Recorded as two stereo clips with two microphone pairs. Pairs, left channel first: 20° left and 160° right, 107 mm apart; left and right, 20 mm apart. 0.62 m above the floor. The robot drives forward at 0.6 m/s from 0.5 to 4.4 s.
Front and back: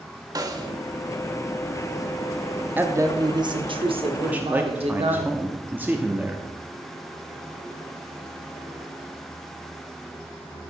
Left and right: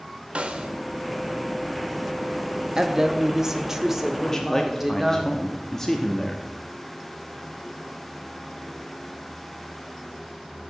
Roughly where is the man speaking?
Behind left.